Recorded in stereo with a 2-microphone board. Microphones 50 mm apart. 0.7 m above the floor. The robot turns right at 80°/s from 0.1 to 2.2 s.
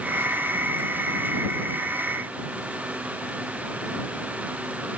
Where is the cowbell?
No cowbell in this recording.